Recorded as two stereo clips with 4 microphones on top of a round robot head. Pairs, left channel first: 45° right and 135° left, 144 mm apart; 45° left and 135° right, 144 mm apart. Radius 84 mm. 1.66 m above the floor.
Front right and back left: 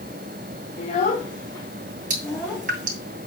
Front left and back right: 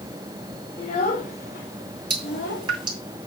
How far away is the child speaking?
About 1.1 m.